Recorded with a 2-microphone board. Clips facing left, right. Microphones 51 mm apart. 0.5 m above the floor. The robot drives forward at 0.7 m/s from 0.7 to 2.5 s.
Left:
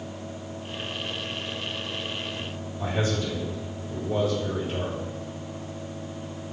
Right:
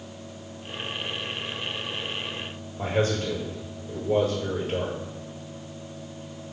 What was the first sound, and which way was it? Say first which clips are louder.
A man speaking: right 3 dB; 55° right (ahead or behind).